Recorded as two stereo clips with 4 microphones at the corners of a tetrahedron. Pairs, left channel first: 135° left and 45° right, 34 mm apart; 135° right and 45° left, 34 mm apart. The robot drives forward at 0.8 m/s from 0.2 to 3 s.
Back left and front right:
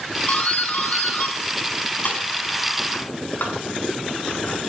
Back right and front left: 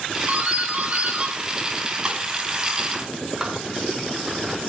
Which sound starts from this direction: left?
A doorbell, at 0.3 s.